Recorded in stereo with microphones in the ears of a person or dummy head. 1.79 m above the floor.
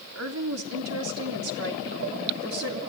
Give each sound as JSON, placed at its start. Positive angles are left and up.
{"t": 0.1, "sound": "a woman speaking", "side_deg": -80, "distance_m": 3.5}